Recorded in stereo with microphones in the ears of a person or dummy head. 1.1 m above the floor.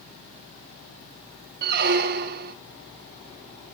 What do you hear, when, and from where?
1.6 s a squeak: 50° right (ahead or behind), 0.8 m